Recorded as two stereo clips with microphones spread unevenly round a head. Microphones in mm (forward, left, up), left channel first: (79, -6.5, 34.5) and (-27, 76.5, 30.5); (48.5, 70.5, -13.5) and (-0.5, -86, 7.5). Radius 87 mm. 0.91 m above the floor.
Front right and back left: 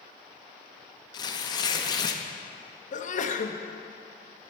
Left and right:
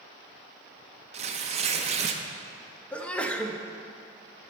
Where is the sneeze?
10° right, 0.9 m.